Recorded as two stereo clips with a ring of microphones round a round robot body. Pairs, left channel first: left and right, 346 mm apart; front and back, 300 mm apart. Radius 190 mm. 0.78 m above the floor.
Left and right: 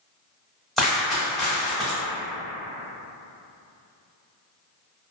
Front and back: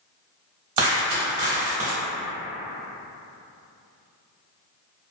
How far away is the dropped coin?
About 0.9 m.